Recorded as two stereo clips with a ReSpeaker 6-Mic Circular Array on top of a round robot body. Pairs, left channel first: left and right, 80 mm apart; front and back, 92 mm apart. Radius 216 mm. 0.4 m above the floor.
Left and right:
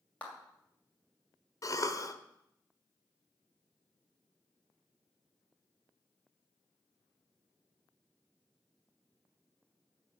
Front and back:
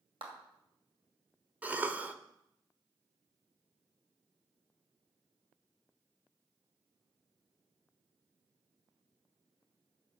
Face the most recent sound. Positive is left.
turn(degrees=115)